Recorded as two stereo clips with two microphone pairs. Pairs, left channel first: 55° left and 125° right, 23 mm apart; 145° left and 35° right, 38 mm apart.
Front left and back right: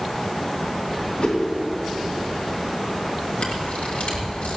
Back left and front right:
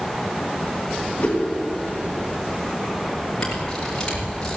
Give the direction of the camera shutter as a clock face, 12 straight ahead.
10 o'clock.